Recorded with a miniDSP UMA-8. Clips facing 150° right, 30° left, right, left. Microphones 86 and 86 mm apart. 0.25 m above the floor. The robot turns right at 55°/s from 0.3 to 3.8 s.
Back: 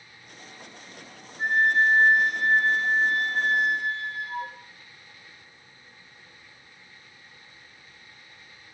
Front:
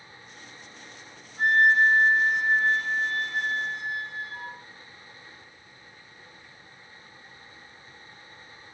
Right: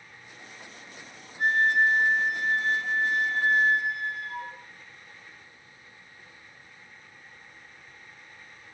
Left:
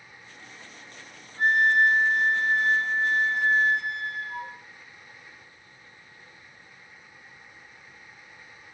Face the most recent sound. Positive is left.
turn(degrees=-175)